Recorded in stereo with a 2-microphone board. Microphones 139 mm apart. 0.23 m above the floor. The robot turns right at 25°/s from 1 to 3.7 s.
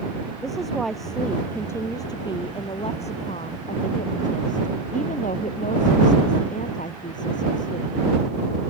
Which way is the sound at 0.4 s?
Straight ahead.